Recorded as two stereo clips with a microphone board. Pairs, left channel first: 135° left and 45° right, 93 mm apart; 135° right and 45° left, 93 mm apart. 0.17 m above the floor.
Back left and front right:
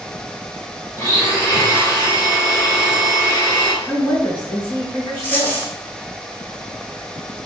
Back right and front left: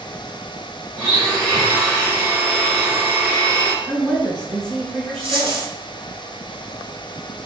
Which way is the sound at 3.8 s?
120° left.